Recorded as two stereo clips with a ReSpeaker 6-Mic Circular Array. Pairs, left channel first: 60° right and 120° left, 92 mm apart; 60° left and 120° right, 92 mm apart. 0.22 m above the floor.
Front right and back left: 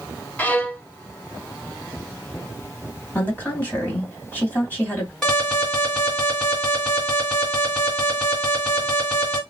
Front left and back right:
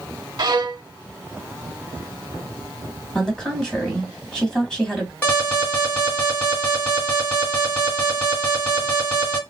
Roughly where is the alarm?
Ahead.